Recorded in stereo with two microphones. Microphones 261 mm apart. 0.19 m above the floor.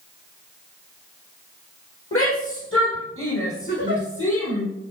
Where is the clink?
I don't hear a clink.